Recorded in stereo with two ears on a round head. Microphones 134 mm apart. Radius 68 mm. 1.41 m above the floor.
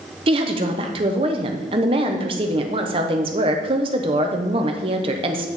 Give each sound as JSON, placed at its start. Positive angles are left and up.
{"t": 0.3, "sound": "a woman speaking", "side_deg": -40, "distance_m": 0.9}